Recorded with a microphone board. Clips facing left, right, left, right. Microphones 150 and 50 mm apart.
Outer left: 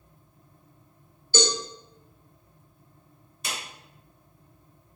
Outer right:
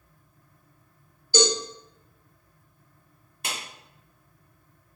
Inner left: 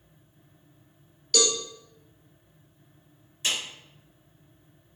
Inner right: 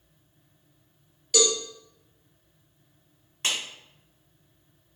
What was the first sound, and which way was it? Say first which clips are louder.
A cowbell: outer right 3 dB, inner right 2 dB; 15° right (ahead or behind).